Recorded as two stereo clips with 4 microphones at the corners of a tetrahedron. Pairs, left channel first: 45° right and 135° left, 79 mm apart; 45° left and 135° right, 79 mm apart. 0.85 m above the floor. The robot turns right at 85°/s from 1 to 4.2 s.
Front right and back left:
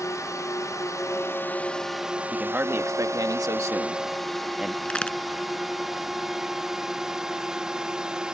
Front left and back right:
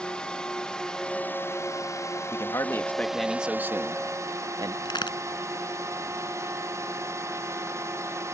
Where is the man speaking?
55° left; by 4.8 s 145° right.